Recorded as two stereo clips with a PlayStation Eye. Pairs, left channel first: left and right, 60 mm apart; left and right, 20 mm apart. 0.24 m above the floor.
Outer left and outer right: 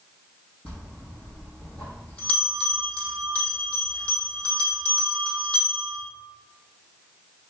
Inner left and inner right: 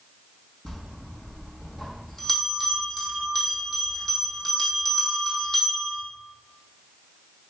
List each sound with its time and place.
0.7 s a bell: 20° left (ahead or behind), 3 m